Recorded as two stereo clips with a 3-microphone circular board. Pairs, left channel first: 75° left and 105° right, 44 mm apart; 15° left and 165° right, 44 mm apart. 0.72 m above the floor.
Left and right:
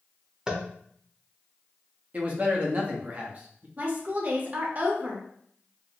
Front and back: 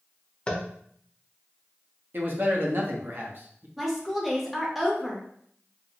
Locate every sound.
0.5 s tapping: 40° right, 0.5 m
2.1 s a man speaking: 150° right, 0.7 m
3.8 s a woman speaking: 80° right, 0.7 m